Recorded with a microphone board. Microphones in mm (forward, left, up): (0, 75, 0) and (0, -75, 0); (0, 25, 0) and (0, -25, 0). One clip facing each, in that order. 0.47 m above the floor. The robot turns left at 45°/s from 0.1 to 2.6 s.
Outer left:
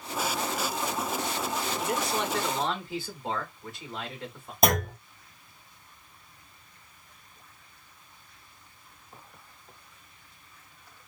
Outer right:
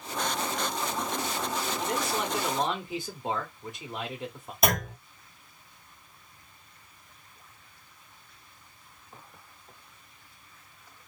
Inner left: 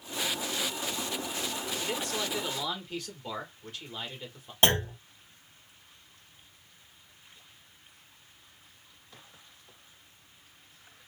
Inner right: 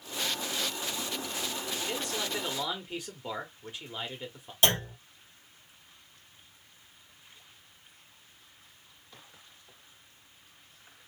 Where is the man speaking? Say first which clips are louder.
Outer left 1 dB, inner left 1 dB; 10° left, 1.1 m; by 4.5 s 25° right, 1.1 m.